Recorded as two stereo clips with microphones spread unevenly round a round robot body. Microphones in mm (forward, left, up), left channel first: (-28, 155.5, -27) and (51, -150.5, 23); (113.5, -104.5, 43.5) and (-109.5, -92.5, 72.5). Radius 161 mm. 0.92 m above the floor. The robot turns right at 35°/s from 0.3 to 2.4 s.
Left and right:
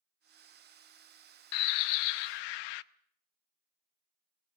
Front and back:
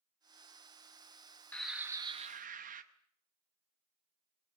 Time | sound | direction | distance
1.5 | a bird | 80° left | 0.6 m